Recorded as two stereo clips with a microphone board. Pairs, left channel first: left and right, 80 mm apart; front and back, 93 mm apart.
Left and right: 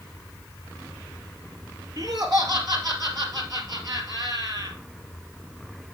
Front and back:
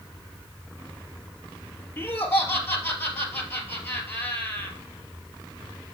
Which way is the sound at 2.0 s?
65° right.